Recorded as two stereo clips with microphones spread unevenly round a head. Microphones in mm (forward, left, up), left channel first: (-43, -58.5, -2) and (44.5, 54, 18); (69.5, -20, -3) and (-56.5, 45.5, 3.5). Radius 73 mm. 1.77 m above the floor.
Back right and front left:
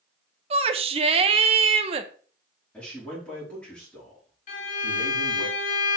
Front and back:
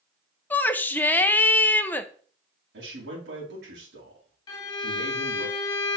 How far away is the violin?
About 2 m.